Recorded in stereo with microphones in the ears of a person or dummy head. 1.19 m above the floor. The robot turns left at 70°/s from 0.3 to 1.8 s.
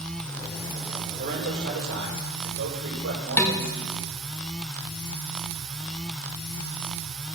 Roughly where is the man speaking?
Ahead right.